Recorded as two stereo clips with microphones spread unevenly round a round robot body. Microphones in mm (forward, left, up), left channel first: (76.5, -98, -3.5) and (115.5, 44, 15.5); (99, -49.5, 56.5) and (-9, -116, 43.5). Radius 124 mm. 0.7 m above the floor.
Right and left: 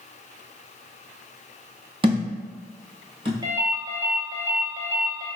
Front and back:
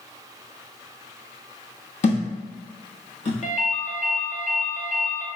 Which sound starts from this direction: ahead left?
A thud, at 2.0 s.